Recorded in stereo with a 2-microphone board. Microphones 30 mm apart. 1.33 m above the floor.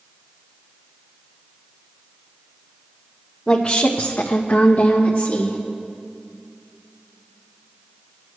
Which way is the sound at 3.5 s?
25° left (ahead or behind).